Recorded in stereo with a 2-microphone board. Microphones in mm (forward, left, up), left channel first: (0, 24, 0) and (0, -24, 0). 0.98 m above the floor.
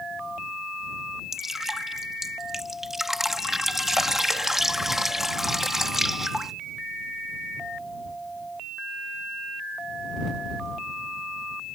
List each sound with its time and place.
1.3 s dripping: 5° right (ahead or behind)